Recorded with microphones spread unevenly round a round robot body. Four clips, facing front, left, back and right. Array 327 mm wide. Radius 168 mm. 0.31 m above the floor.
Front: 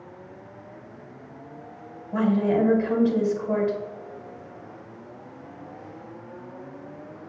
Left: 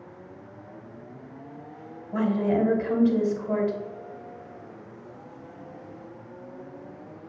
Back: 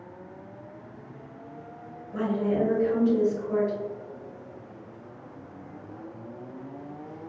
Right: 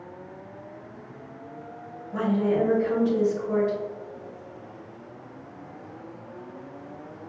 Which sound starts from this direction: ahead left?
A woman speaking, at 2.1 s.